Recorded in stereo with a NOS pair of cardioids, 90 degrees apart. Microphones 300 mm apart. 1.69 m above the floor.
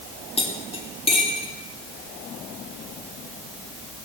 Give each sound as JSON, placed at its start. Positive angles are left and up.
{"t": 0.4, "sound": "cutlery clinking", "azimuth_deg": 20, "distance_m": 2.5}